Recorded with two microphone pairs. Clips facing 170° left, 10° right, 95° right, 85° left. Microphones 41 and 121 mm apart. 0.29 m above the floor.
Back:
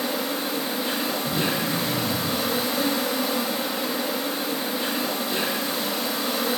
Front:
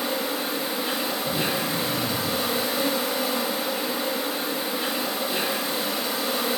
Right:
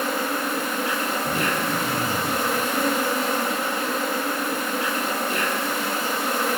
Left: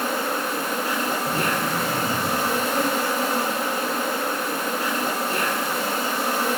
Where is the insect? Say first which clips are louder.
Even, even; 70° left, 0.9 m.